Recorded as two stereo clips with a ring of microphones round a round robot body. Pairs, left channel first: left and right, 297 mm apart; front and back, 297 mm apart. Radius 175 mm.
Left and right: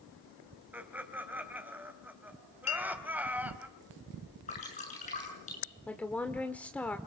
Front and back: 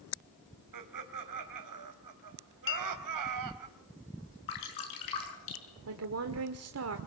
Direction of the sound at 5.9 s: 175° left.